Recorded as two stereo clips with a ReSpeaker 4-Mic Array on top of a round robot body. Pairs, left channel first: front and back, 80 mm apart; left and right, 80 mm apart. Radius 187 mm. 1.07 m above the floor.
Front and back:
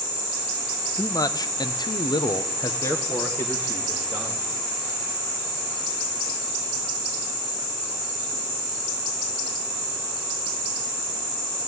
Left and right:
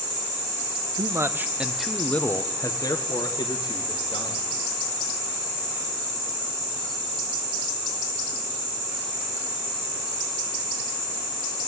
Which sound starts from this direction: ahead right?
A man speaking, at 1.0 s.